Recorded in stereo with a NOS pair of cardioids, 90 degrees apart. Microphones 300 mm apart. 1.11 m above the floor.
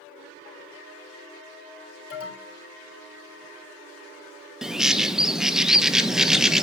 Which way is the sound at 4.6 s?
Straight ahead.